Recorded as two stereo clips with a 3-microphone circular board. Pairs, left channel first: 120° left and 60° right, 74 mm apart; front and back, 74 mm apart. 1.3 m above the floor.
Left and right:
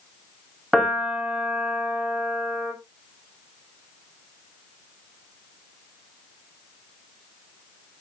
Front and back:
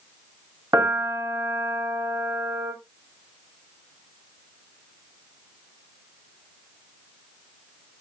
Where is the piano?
140° right, 2.5 m.